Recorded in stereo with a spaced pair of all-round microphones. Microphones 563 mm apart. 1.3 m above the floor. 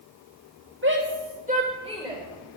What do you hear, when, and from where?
0.8 s a shout: 20° right (ahead or behind), 4 m; by 2.2 s centre (ahead or behind), 4 m